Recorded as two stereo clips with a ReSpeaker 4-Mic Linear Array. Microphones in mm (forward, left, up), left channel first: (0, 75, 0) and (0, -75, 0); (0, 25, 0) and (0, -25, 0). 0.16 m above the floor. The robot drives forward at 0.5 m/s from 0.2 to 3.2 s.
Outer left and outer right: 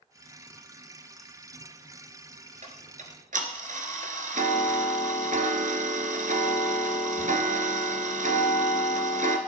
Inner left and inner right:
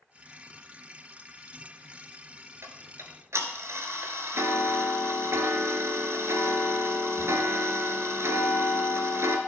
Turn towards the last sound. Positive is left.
turn(degrees=-60)  # may be behind; listen again after turning